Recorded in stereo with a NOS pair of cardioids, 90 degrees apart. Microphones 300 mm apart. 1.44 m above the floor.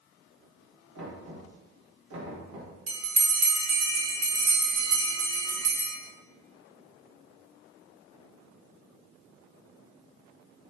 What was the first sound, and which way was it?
Knocking, 65° right.